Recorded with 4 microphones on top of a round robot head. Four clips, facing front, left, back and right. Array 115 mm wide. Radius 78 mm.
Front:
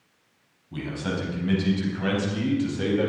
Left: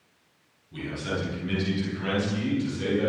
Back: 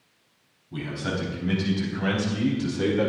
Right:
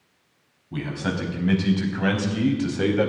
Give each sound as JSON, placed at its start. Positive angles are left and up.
{"t": 0.7, "sound": "a man speaking", "azimuth_deg": -85, "distance_m": 5.0}